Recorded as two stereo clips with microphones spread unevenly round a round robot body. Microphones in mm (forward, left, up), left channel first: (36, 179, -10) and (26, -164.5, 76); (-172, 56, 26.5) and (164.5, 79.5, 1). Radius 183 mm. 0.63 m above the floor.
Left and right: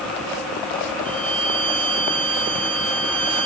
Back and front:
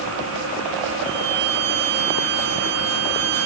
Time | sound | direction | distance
1.1 | a violin | 20° right | ?